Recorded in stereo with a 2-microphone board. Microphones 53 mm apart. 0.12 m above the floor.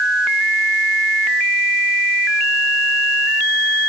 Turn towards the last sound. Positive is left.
No sound to turn to.